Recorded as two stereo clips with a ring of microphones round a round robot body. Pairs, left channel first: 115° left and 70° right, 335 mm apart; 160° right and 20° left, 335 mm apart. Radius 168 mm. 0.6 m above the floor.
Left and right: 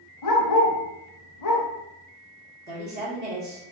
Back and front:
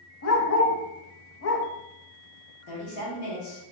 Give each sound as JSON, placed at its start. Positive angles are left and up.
{"t": 0.2, "sound": "a dog barking", "azimuth_deg": 150, "distance_m": 0.7}
{"t": 2.7, "sound": "a woman speaking", "azimuth_deg": -125, "distance_m": 2.0}